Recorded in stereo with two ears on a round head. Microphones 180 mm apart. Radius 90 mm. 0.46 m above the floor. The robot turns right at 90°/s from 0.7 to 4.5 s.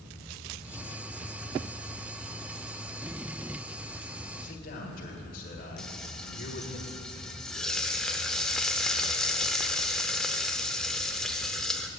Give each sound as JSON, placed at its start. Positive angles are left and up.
{"t": 4.4, "sound": "a man speaking", "side_deg": 45, "distance_m": 1.6}
{"t": 5.8, "sound": "frying", "side_deg": 5, "distance_m": 0.6}